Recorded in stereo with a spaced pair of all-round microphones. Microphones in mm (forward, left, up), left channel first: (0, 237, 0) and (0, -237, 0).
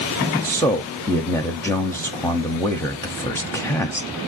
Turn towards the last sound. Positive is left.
turn(degrees=5)  # may be behind; listen again after turning